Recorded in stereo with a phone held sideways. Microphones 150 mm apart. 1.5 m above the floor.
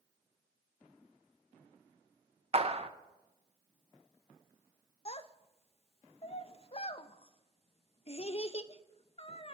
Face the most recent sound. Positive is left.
turn(degrees=40)  # may be behind; listen again after turning